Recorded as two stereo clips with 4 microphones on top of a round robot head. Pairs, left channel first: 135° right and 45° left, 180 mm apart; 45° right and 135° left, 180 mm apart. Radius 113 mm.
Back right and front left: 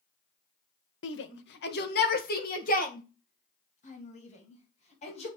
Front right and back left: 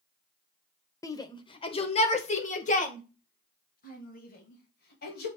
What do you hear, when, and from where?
1.0 s a shout: 120° right, 1.2 m; by 5.3 s 80° right, 3.5 m